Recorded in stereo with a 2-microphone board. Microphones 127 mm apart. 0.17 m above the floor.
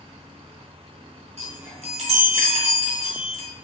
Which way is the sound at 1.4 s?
55° right (ahead or behind).